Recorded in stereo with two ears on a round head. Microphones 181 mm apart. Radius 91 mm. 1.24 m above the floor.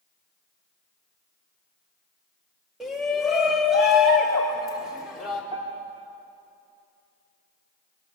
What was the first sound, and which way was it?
A shout, centre (ahead or behind).